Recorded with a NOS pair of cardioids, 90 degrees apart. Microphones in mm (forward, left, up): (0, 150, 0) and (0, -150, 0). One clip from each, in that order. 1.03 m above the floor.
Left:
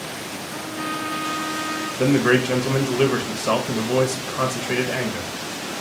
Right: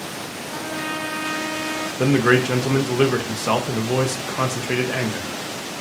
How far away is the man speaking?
About 0.7 m.